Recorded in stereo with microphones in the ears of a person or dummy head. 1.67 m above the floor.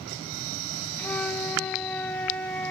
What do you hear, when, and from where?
1.0 s a flute: 5° left (ahead or behind), 0.7 m